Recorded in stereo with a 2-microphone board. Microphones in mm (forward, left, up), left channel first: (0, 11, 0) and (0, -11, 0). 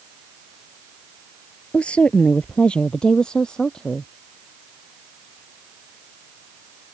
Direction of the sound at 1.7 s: 55° left (ahead or behind).